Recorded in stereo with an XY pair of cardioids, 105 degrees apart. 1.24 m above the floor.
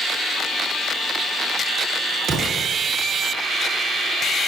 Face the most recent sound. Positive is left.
turn(degrees=-65)